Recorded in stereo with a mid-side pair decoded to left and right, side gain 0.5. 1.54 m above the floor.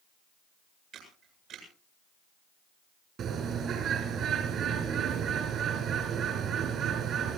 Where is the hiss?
I don't hear a hiss.